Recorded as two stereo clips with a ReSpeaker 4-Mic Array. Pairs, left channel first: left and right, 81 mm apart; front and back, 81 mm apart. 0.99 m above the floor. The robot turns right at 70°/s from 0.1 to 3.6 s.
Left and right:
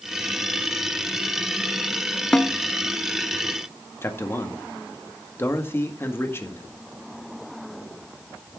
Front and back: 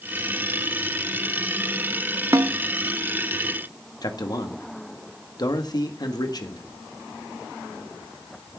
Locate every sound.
2.3 s a snare drum: 165° left, 0.6 m; by 2.5 s straight behind, 0.6 m
4.0 s a man speaking: 30° left, 1.7 m